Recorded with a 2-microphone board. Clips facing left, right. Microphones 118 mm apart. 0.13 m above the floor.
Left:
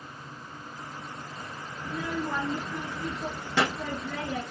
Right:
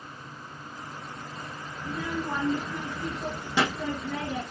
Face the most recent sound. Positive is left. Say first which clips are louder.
# even
turn(degrees=-10)  # may be behind; listen again after turning